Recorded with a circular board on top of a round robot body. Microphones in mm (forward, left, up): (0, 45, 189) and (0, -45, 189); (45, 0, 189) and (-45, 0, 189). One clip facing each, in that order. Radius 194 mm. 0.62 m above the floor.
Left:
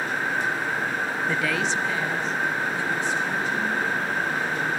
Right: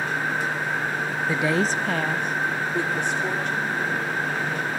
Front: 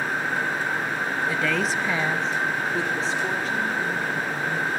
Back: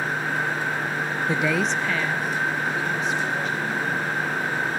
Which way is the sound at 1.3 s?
170° right.